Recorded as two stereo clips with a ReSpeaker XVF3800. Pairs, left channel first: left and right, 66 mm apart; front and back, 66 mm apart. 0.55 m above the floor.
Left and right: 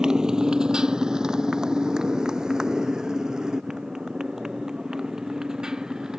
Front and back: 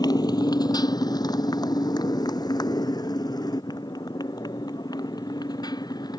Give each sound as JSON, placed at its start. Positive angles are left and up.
{"t": 0.0, "sound": "a motorcycle", "azimuth_deg": -10}